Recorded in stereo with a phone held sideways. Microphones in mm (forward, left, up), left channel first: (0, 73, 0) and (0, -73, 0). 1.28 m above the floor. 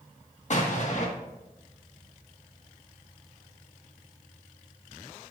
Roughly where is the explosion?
Left.